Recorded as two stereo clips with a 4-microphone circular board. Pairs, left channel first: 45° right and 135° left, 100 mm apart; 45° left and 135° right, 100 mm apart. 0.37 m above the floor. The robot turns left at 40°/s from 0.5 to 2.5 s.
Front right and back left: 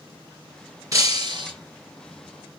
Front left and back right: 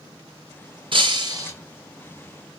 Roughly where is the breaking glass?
Behind.